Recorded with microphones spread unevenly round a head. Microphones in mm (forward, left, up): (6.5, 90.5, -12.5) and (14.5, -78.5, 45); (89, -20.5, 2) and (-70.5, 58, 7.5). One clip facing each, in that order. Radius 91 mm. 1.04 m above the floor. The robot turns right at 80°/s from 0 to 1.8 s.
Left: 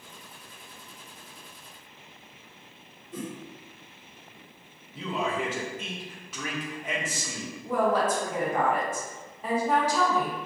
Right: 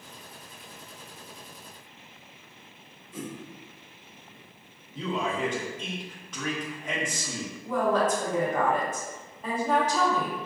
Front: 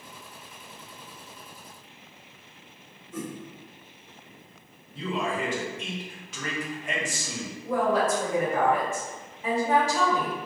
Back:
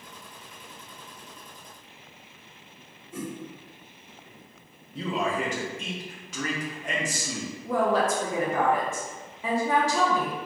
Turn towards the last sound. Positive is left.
turn(degrees=165)